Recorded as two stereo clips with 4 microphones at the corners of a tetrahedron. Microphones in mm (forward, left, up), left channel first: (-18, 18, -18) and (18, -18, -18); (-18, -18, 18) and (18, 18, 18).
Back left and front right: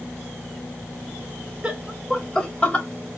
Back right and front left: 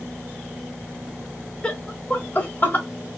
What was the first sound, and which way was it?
Laughter, 85° right.